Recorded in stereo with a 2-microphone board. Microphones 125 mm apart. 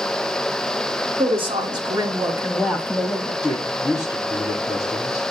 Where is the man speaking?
30° left (ahead or behind), 6 m.